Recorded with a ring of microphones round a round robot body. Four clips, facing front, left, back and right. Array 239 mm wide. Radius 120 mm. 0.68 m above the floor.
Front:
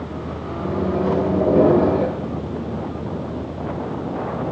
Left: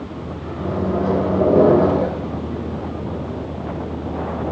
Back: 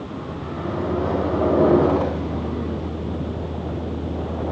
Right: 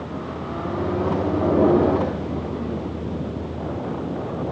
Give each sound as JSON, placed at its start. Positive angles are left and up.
{"t": 0.6, "sound": "a microwave", "azimuth_deg": 65, "distance_m": 2.5}